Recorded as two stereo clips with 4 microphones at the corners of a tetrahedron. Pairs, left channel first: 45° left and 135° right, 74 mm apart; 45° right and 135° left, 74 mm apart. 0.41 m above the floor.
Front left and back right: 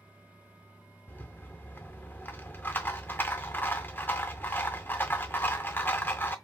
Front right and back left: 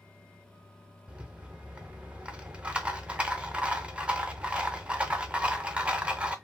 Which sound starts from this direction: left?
A rattle, at 1.1 s.